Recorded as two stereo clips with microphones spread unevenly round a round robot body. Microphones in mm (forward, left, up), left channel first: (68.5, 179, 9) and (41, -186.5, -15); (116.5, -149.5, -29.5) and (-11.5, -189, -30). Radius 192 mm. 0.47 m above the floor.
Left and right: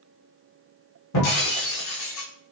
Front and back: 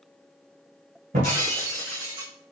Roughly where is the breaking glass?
Behind left.